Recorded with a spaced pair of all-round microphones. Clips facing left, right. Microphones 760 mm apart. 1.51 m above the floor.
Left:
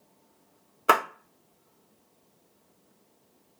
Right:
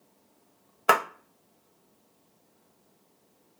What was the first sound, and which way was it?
A clap, 30° right (ahead or behind).